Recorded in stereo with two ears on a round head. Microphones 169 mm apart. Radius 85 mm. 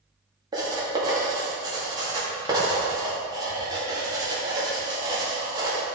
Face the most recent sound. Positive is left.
turn(degrees=-20)  # may be behind; listen again after turning